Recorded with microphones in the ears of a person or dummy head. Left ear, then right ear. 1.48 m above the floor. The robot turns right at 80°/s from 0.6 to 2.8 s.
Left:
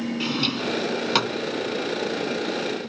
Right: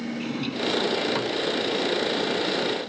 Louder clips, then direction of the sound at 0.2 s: Left 4 dB; 30° left (ahead or behind).